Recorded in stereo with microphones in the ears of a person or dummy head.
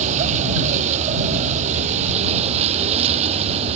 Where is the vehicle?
40° right (ahead or behind).